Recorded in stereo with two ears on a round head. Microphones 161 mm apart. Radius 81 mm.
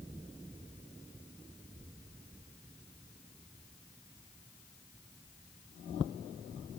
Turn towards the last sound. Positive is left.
No sound to turn to.